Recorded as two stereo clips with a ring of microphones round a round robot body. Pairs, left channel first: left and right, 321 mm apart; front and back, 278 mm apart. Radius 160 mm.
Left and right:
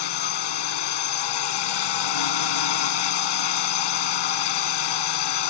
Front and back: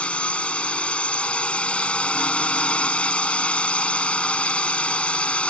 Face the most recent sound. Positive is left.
turn(degrees=85)